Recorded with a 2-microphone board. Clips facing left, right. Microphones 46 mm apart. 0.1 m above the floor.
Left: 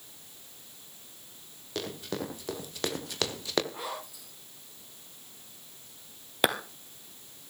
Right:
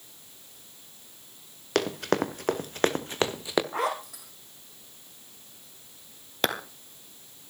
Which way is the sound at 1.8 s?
70° right (ahead or behind).